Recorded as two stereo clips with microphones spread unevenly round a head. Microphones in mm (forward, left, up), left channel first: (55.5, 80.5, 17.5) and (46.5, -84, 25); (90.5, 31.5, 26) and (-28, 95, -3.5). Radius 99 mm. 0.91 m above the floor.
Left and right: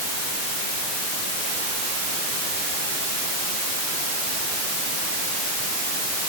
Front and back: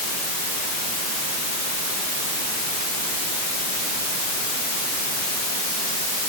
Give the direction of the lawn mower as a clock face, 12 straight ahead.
No lawn mower in this recording.